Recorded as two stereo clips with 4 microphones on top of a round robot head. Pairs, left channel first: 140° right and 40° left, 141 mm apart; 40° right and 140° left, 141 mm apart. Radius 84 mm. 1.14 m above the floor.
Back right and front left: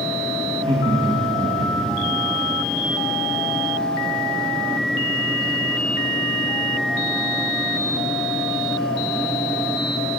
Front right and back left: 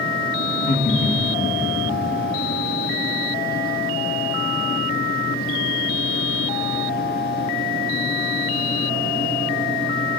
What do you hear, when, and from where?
0.5 s laughter: 15° right, 1.4 m